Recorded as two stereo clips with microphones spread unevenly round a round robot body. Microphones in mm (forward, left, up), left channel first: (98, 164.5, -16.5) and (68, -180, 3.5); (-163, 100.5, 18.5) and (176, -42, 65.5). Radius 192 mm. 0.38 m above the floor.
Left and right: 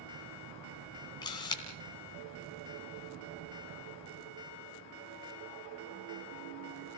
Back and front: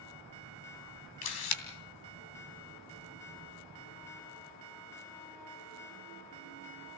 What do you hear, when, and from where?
1.2 s a camera shutter: 165° left, 2.5 m